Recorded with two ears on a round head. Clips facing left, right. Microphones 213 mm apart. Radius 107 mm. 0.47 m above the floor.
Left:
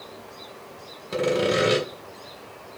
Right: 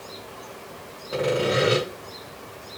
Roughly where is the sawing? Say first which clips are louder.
Left 1 dB; left.